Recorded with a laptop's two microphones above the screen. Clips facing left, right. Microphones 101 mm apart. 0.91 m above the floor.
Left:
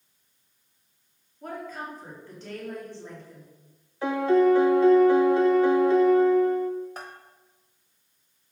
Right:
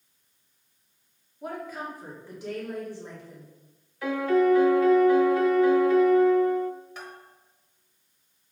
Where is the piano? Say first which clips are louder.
Left 2 dB; 30° left (ahead or behind), 0.6 m.